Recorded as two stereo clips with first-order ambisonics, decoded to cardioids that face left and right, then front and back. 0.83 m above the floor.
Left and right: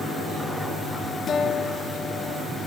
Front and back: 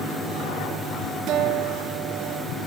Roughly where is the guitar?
Behind left.